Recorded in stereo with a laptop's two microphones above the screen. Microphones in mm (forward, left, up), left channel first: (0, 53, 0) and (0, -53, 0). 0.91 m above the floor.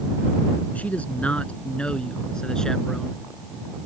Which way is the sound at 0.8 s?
15° left (ahead or behind).